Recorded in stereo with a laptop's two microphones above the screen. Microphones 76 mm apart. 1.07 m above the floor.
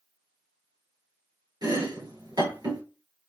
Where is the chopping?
65° right (ahead or behind), 3 m.